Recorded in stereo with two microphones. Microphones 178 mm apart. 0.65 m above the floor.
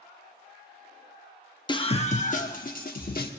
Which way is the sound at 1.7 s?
25° left (ahead or behind).